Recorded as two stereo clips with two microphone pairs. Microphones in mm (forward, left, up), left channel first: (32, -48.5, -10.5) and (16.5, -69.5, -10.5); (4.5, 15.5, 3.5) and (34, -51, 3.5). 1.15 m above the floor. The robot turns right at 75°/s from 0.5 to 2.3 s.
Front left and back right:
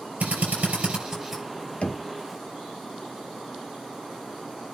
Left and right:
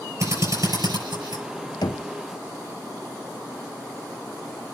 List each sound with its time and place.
0.2 s a drill: 110° right, 7 m; by 1.4 s 40° right, 7 m
1.8 s knocking: 90° left, 0.9 m; by 2.1 s 110° left, 0.9 m